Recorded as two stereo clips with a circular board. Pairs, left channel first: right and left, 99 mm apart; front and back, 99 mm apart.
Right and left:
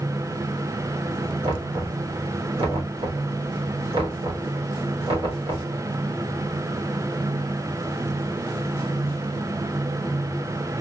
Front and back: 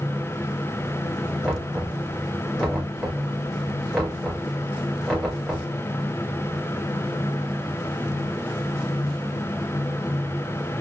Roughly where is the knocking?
Left.